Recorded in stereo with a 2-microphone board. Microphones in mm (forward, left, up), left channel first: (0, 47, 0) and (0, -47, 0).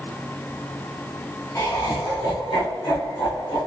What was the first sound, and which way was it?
Laughter, 35° left (ahead or behind).